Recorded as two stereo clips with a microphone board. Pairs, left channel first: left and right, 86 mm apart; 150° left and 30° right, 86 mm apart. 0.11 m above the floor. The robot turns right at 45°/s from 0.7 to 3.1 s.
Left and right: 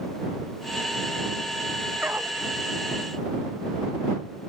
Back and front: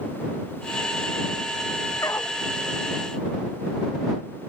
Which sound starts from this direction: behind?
A dog barking, at 2.0 s.